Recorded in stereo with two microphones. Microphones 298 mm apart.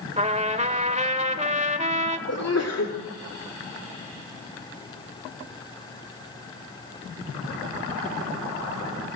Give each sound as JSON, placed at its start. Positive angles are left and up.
{"t": 0.2, "sound": "a trumpet", "side_deg": -20, "distance_m": 1.8}
{"t": 2.3, "sound": "a sneeze", "side_deg": 60, "distance_m": 2.5}